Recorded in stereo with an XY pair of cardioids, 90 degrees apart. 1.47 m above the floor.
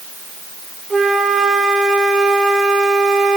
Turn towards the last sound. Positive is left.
turn(degrees=-25)